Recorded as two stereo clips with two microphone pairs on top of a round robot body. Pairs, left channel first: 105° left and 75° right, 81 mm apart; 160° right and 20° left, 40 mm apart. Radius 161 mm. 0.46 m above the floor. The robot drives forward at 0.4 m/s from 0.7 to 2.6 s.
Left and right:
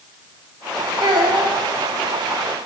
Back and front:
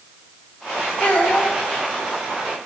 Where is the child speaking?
100° right, 1.8 m; by 1.5 s 105° right, 1.8 m.